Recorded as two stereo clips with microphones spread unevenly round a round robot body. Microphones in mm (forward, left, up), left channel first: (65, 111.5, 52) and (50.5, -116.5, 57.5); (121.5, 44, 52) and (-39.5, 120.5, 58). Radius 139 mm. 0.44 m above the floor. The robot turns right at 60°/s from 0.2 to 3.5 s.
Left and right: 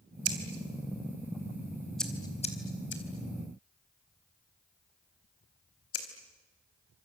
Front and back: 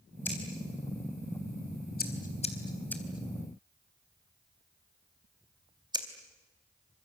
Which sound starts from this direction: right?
Scissors, at 0.2 s.